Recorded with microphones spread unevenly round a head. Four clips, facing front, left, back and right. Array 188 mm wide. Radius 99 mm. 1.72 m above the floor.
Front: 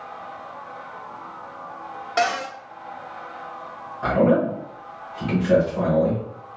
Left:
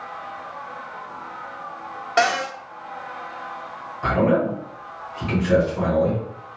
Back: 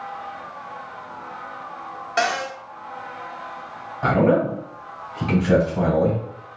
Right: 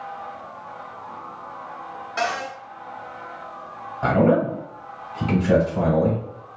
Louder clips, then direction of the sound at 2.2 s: Left 6 dB, even; 90° left.